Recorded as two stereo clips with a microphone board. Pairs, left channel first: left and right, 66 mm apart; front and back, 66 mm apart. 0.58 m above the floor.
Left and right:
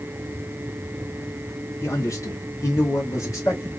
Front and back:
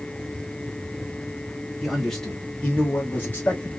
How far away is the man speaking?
About 1.5 m.